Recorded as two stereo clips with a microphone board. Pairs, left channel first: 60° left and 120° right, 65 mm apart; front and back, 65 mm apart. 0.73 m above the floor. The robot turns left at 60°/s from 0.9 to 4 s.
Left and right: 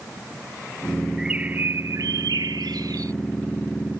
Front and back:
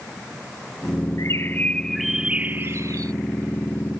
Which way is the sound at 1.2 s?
40° right.